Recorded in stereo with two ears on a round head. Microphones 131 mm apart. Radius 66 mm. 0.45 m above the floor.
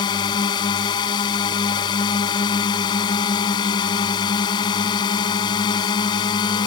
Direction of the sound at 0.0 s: 30° left (ahead or behind).